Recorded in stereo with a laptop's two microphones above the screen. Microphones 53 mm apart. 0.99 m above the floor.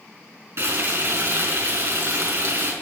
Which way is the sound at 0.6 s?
60° right (ahead or behind).